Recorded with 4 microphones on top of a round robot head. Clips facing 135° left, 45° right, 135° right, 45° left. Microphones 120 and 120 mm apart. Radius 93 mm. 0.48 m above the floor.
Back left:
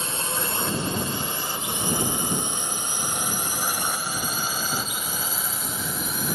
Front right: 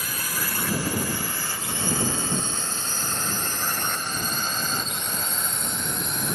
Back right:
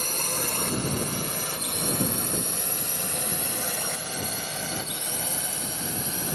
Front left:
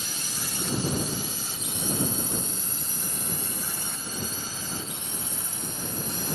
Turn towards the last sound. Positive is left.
turn(degrees=-135)